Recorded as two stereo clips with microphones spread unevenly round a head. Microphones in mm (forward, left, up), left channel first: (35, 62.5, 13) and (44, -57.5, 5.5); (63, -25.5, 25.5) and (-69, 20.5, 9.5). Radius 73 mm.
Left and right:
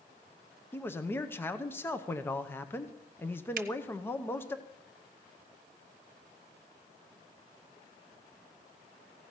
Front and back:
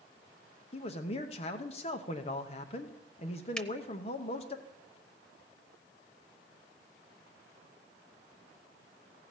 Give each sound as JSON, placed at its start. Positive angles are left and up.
{"t": 0.7, "sound": "a man speaking", "azimuth_deg": 25, "distance_m": 0.8}
{"t": 3.6, "sound": "a finger snap", "azimuth_deg": -100, "distance_m": 0.7}